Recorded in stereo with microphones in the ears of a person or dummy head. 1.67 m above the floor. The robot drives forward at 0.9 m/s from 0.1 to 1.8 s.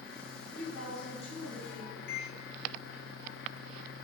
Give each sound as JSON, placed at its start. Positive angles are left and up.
{"t": 0.5, "sound": "a woman speaking", "side_deg": 85, "distance_m": 1.7}
{"t": 2.1, "sound": "a microwave", "side_deg": 60, "distance_m": 0.6}